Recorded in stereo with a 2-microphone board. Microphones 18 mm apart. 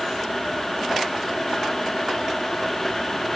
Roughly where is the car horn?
No car horn in this recording.